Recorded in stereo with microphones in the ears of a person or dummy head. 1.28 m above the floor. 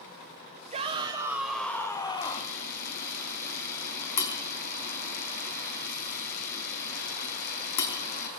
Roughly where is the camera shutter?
Left.